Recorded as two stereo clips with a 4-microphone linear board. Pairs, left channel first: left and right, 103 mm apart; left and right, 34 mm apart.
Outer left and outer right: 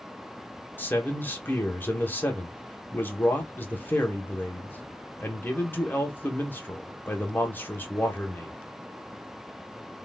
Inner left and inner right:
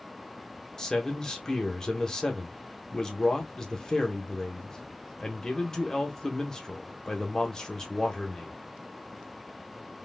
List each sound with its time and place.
0.8 s a man speaking: 20° left (ahead or behind), 0.8 m